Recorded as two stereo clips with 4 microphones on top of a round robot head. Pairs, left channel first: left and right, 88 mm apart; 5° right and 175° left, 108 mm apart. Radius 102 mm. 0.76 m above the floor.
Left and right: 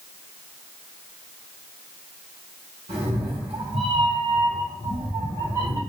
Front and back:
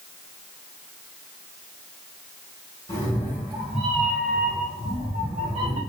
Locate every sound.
2.9 s a cat meowing: 70° right, 1.7 m; by 5.8 s 140° right, 2 m